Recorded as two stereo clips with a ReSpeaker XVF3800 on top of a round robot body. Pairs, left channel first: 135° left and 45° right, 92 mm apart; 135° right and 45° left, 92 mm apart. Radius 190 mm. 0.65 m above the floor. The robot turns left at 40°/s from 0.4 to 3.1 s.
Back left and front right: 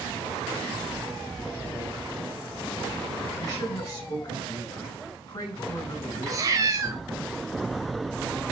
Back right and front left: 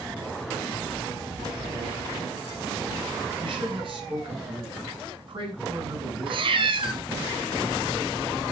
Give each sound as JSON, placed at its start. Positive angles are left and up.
{"t": 3.4, "sound": "a man speaking", "azimuth_deg": 80, "distance_m": 6.0}
{"t": 6.3, "sound": "a cat meowing", "azimuth_deg": 10, "distance_m": 1.7}